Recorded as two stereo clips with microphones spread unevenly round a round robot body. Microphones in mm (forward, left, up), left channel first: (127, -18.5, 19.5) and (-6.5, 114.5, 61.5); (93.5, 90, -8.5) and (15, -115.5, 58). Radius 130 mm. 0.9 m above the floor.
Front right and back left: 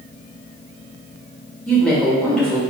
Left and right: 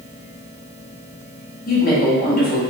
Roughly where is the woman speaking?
Ahead left.